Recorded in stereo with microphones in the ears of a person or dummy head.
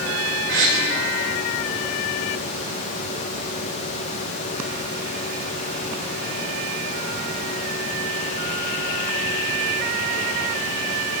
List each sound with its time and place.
0.5 s a gasp: 65° right (ahead or behind), 5 m